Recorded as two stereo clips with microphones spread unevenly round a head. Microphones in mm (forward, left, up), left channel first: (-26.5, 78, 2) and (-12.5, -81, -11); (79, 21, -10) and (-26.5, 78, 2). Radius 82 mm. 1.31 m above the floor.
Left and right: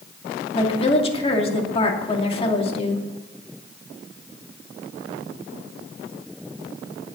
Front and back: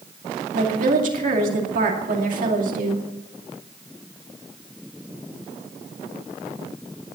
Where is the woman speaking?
150° left, 2.5 m.